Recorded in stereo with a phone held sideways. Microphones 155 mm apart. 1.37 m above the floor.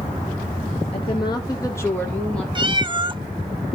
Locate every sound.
0.9 s a woman speaking: 35° left (ahead or behind), 1.6 m; by 2.5 s 5° left (ahead or behind), 1.9 m
2.5 s a cat meowing: 30° right (ahead or behind), 0.6 m